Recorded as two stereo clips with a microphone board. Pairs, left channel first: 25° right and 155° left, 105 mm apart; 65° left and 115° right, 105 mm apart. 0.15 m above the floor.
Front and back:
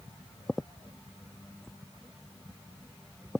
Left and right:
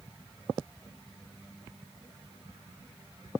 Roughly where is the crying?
No crying in this recording.